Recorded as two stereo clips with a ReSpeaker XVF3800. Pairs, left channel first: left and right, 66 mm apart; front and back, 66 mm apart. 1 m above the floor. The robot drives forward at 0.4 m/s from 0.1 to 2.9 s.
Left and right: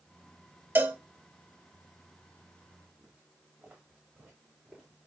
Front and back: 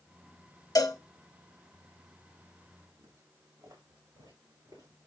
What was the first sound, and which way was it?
A cowbell, 30° right.